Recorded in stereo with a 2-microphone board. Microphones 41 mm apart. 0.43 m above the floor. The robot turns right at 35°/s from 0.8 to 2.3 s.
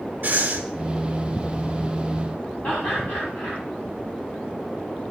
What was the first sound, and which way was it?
Breathing, 55° right (ahead or behind).